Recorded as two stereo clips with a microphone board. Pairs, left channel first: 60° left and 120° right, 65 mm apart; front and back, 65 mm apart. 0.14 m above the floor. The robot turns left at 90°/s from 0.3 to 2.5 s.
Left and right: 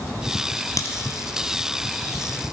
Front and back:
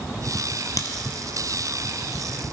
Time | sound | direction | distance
0.8 | a crack | 30° left | 0.7 m